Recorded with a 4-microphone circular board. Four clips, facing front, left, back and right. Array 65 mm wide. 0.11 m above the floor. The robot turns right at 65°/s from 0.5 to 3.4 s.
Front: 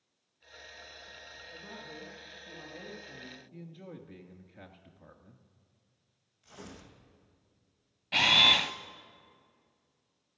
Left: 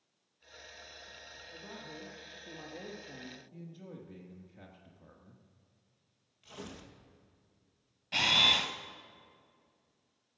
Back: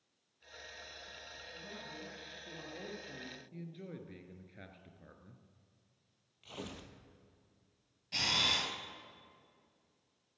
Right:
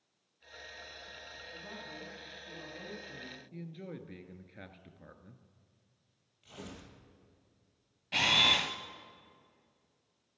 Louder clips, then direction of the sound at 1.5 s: Even, front 3 dB; 35° left.